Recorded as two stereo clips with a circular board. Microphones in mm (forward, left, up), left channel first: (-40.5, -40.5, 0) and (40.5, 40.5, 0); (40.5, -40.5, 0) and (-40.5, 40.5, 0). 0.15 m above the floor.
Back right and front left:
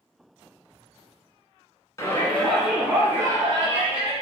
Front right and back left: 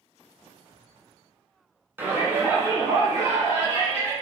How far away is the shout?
About 1.4 m.